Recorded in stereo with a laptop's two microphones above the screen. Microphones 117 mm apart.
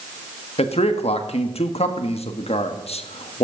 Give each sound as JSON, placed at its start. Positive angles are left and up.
{"t": 0.6, "sound": "a man speaking", "side_deg": 60, "distance_m": 1.4}